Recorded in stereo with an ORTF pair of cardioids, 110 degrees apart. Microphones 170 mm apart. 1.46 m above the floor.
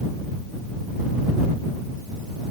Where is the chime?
No chime in this recording.